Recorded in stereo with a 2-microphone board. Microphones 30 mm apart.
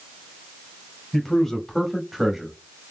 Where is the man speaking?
15° left (ahead or behind), 1.1 m; by 2.5 s 15° right (ahead or behind), 1.0 m.